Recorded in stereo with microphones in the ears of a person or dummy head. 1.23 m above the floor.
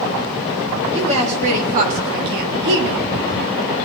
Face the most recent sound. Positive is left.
turn(degrees=-70)  # may be behind; listen again after turning